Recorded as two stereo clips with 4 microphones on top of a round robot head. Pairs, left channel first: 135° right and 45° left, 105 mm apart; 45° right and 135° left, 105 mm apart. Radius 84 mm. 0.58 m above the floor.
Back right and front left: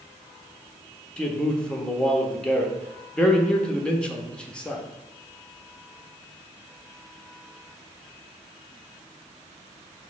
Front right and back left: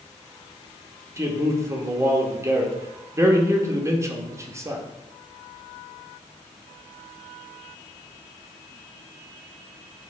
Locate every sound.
1.2 s a man speaking: 155° left, 0.8 m